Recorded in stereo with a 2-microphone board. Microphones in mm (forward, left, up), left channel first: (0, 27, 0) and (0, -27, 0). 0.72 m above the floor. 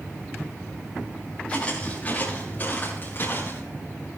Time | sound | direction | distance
1.5 | footsteps | 25° left (ahead or behind) | 7.5 m